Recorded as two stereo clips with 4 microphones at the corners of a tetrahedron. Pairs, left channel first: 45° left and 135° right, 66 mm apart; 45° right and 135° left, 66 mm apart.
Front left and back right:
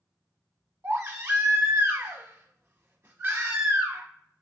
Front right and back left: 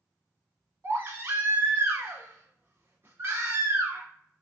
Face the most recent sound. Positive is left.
turn(degrees=180)